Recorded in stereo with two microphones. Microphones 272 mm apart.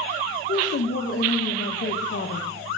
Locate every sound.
0.5 s a woman speaking: 45° left (ahead or behind), 1.0 m